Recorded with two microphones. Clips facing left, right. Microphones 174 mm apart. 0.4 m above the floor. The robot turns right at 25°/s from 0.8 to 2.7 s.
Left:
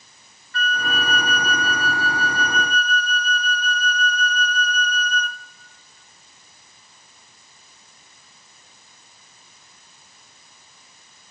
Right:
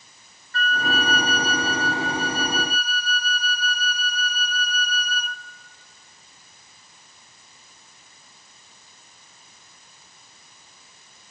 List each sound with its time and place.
0.5 s a flute: 55° right, 0.9 m; by 5.4 s 10° right, 0.9 m